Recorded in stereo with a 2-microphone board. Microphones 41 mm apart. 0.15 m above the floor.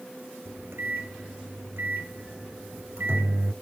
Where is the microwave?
65° right (ahead or behind), 1.7 m.